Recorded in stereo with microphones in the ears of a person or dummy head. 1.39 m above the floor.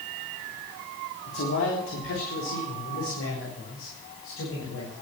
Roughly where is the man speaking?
Left.